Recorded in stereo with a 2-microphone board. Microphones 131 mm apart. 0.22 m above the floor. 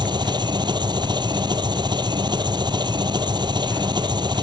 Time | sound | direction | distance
0.0 | an engine running | 35° right (ahead or behind) | ?